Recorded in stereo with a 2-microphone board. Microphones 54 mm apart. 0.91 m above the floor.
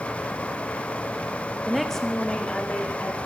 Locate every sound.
1.7 s a woman speaking: 10° right (ahead or behind), 0.8 m; by 3.3 s 30° left (ahead or behind), 3 m